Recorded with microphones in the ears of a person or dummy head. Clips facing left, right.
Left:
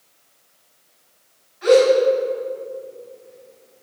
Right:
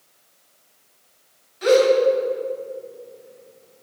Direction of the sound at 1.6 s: 55° right (ahead or behind).